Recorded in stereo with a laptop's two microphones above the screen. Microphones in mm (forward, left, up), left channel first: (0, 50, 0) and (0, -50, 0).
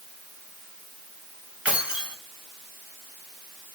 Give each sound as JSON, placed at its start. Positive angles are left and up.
{"t": 1.6, "sound": "keys jangling", "side_deg": -10, "distance_m": 4.0}